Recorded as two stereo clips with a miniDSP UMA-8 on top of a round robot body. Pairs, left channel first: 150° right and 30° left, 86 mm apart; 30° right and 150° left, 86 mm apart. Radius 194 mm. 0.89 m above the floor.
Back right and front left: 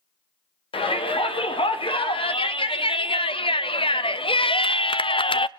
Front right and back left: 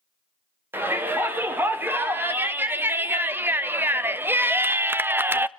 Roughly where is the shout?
Behind right.